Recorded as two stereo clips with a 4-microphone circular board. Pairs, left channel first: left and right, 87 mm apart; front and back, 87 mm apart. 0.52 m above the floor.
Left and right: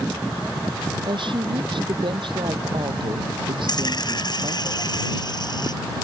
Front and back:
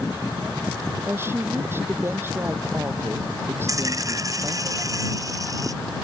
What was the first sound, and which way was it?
A woman speaking, 115° right.